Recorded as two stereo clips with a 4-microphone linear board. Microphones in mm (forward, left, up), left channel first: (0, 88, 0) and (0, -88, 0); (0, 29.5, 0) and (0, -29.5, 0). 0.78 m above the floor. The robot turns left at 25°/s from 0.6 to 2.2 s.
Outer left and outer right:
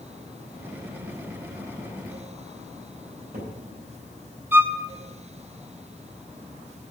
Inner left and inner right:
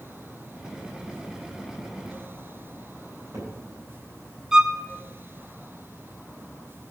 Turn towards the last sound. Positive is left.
turn(degrees=-10)  # may be behind; listen again after turning